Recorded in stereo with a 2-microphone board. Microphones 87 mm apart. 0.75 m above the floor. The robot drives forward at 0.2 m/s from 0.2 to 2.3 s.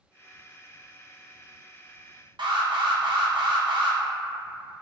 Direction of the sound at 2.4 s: 60° right (ahead or behind).